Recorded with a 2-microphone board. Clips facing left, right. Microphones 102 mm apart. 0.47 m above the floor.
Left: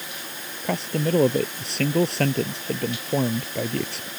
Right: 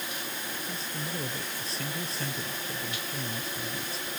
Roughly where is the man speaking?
Left.